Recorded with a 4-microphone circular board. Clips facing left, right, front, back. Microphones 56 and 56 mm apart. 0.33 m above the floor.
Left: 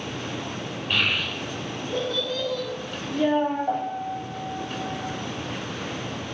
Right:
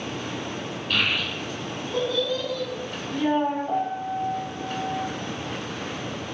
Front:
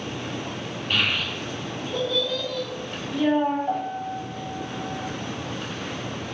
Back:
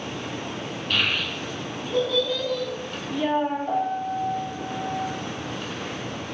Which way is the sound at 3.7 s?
80° left.